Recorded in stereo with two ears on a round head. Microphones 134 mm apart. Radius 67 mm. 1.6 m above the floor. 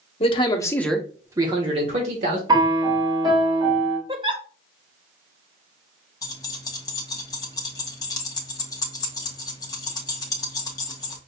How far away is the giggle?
About 0.6 m.